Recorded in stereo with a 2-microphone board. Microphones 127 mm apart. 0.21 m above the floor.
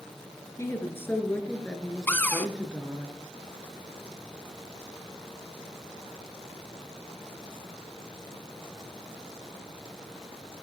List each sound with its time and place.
0.6 s a woman speaking: 20° left (ahead or behind), 2.5 m; by 3.1 s 15° right (ahead or behind), 2.5 m
2.1 s a cupboard door: 15° left (ahead or behind), 0.9 m